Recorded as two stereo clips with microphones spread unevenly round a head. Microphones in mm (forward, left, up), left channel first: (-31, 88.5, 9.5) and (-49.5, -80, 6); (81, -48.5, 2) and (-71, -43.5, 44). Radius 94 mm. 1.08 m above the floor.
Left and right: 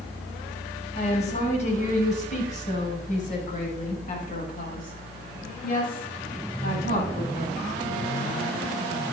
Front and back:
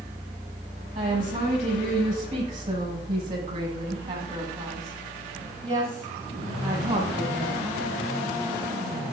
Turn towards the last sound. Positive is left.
turn(degrees=115)